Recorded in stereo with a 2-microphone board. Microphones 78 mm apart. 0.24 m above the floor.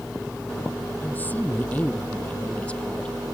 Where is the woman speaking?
25° left (ahead or behind); by 3.2 s 15° left (ahead or behind).